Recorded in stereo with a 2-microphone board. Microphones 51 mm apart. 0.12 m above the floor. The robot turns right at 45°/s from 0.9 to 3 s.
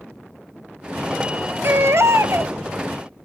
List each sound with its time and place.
1.6 s a baby crying: 115° right, 0.7 m; by 2.5 s 75° right, 0.7 m